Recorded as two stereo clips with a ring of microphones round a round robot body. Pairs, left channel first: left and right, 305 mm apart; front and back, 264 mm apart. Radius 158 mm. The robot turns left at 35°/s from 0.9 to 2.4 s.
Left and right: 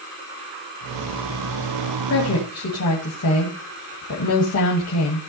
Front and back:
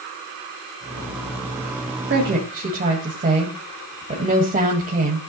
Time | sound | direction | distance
2.1 | a woman speaking | 135° left | 2 m